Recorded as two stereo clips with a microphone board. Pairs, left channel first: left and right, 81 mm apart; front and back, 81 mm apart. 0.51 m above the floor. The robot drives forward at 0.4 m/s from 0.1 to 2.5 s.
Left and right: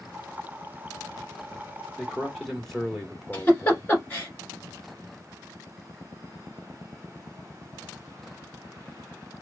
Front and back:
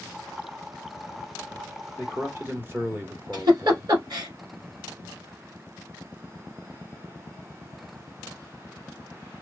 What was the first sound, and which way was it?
A man speaking, 175° left.